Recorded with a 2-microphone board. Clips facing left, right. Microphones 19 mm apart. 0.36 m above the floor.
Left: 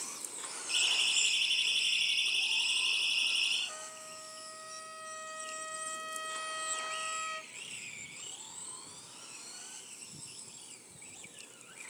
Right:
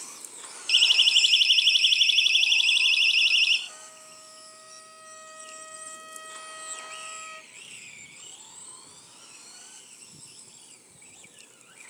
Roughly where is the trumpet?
Centre.